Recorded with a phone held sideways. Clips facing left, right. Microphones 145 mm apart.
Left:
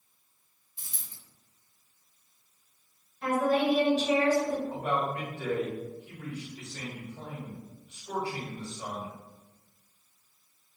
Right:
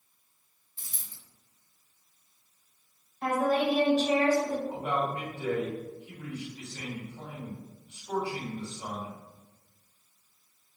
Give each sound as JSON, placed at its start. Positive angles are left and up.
{"t": 0.8, "sound": "a dropped coin", "side_deg": 15, "distance_m": 0.8}
{"t": 3.2, "sound": "a woman speaking", "side_deg": -40, "distance_m": 0.9}
{"t": 4.7, "sound": "a man speaking", "side_deg": 65, "distance_m": 1.6}